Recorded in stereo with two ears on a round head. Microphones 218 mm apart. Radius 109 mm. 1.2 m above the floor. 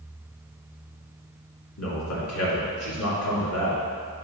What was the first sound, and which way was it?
A man speaking, 65° left (ahead or behind).